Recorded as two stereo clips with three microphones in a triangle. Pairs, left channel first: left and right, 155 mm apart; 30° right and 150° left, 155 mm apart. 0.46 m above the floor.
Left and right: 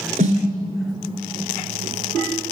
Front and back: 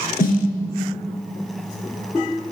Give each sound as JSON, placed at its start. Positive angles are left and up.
{"t": 0.2, "sound": "a snare drum", "azimuth_deg": -50, "distance_m": 3.0}